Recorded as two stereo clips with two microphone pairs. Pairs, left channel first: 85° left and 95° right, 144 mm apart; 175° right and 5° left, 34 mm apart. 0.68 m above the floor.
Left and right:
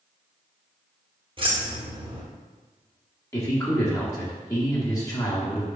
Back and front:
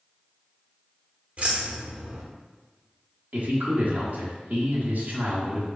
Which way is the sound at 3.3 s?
25° left.